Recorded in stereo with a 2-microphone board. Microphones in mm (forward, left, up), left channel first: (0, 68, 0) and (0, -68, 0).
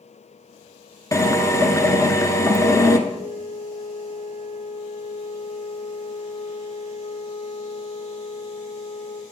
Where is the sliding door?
No sliding door in this recording.